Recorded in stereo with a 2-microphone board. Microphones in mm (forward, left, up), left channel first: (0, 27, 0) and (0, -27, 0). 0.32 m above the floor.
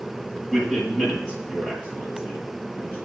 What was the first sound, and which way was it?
A man speaking, 10° left (ahead or behind).